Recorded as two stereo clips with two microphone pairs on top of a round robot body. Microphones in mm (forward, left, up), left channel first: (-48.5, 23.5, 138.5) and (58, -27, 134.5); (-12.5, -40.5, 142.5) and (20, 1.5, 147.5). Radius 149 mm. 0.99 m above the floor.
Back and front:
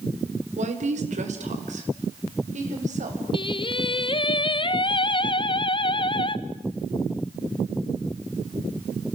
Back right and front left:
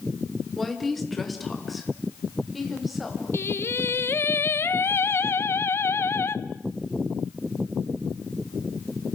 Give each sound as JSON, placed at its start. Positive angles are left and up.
{"t": 0.6, "sound": "a woman speaking", "azimuth_deg": -40, "distance_m": 3.5}
{"t": 3.3, "sound": "singing", "azimuth_deg": -160, "distance_m": 0.9}